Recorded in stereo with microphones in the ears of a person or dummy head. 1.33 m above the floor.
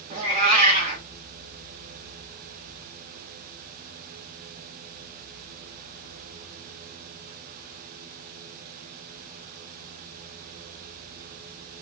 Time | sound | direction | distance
0.1 | a cat meowing | 30° right (ahead or behind) | 1.2 m